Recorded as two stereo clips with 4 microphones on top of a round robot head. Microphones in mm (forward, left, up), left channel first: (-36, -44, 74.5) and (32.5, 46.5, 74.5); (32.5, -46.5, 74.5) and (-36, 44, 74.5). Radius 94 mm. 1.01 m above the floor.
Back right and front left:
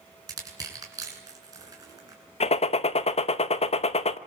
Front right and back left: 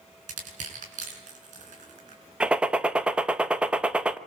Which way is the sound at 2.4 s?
155° right.